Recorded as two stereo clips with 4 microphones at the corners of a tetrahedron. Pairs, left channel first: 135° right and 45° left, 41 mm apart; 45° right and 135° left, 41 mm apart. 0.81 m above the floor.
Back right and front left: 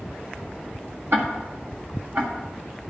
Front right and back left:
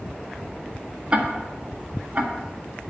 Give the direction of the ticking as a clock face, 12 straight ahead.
9 o'clock.